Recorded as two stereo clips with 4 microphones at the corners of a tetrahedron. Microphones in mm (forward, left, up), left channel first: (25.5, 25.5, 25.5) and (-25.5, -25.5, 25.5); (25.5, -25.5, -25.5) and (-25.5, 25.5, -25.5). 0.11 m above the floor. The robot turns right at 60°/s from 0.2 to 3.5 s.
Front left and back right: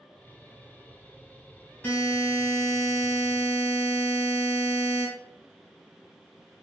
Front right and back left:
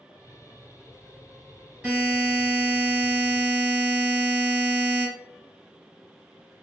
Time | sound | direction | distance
1.8 | a buzzer | 80° left | 1.9 m